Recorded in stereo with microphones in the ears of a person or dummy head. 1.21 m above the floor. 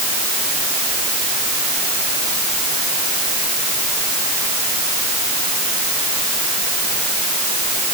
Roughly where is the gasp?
I don't hear a gasp.